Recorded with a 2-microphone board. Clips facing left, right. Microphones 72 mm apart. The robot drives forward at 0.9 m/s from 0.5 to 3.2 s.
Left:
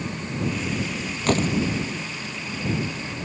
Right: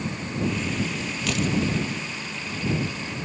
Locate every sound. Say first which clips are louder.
1.3 s a door slam: left 5 dB; 40° left (ahead or behind)